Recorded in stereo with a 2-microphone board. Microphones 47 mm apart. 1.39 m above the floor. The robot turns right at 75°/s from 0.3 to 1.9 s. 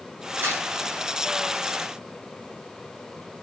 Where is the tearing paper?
60° right (ahead or behind), 4.5 m; by 0.6 s 45° right (ahead or behind), 4.5 m.